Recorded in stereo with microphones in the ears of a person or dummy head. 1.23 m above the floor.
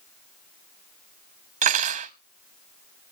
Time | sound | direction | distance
1.6 | cutlery clinking | 35° right (ahead or behind) | 0.7 m